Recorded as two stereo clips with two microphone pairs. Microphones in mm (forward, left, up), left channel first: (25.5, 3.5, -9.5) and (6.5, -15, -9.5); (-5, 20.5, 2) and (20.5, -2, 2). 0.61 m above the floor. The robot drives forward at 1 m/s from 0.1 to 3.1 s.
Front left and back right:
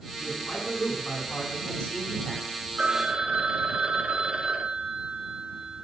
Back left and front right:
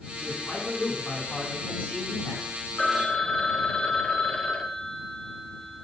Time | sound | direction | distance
0.2 | a man speaking | 85° left | 5 m
2.8 | a phone ringing | 155° right | 0.6 m